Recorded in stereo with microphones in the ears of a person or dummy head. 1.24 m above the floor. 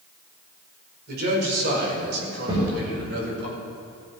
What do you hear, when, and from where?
1.1 s a man speaking: 70° right (ahead or behind), 5 m
2.5 s a thud: 30° right (ahead or behind), 6 m